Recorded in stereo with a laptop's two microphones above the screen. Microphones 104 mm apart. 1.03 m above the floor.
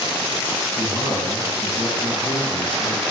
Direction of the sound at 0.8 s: 5° right (ahead or behind).